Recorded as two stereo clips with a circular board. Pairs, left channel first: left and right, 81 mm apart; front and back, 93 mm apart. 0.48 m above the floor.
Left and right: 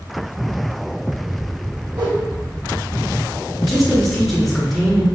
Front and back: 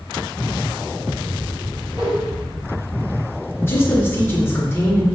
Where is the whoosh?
135° right, 2.0 m.